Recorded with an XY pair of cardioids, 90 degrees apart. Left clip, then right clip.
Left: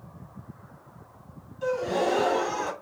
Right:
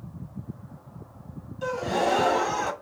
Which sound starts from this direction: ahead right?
A gasp, at 1.6 s.